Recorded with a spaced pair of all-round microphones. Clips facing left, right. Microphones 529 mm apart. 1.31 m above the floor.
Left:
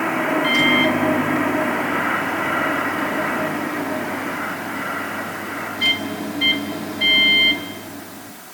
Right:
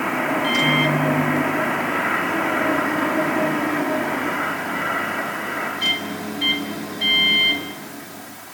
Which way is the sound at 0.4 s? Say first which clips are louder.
Left 2 dB; 70° left (ahead or behind).